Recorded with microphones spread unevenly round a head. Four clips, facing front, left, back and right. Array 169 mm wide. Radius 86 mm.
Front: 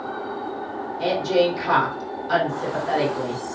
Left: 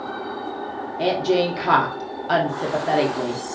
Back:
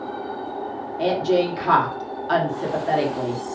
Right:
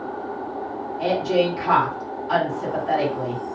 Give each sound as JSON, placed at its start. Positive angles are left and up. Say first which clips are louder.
{"t": 1.0, "sound": "a woman speaking", "louder": "left 1 dB, even", "azimuth_deg": 105, "distance_m": 1.1}